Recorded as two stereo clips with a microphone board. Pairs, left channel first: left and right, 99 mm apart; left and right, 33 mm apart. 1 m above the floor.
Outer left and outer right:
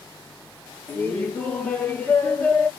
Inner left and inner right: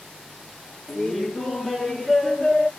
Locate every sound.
0.9 s laughter: 15° left (ahead or behind), 0.9 m